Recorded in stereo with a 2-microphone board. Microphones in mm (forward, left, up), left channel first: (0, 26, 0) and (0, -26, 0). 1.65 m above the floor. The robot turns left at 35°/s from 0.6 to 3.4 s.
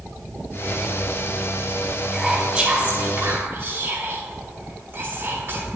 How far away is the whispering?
About 3.5 m.